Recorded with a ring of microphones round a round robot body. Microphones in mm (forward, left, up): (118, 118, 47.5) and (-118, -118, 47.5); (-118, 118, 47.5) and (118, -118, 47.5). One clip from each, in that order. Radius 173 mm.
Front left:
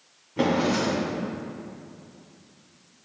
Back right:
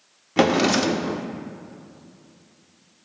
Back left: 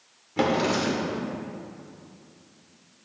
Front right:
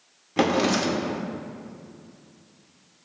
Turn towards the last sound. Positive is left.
turn(degrees=-115)